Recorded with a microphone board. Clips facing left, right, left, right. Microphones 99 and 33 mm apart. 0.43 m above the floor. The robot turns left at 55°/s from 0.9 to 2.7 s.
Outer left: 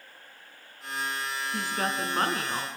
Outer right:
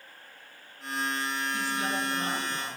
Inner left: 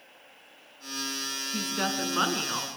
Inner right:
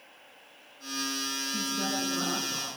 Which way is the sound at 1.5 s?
135° left.